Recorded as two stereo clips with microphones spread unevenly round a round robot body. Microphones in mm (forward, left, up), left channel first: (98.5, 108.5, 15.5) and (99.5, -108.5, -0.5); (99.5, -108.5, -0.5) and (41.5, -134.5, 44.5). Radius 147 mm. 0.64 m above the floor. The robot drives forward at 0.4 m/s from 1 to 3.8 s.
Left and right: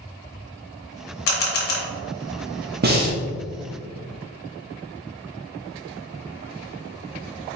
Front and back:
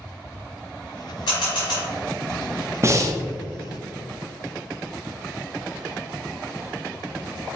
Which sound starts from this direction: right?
Breathing, at 2.8 s.